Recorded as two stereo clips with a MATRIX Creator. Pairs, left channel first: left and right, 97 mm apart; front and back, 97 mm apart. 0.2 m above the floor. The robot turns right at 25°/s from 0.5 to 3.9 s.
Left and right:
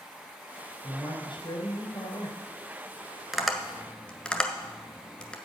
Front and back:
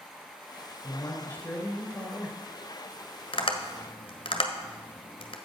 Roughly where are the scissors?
I don't hear scissors.